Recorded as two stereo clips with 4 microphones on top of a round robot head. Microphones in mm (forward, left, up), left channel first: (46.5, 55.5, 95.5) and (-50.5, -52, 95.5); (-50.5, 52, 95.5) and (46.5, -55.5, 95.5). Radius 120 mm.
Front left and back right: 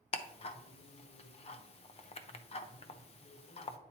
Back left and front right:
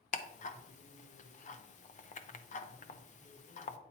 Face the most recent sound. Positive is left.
turn(degrees=95)